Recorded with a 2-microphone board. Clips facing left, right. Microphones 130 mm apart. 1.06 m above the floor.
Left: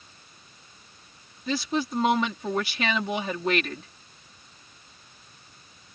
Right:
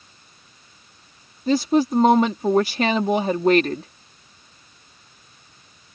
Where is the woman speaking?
40° right (ahead or behind).